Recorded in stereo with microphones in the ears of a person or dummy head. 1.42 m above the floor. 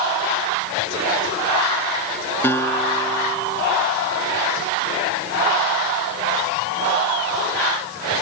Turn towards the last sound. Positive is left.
turn(degrees=15)  # may be behind; listen again after turning